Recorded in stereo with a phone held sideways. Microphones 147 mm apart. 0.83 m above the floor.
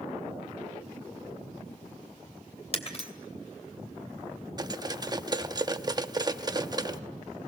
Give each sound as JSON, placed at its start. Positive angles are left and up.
{"t": 2.7, "sound": "breaking glass", "side_deg": 45, "distance_m": 2.5}
{"t": 4.6, "sound": "cutlery clinking", "side_deg": -30, "distance_m": 0.6}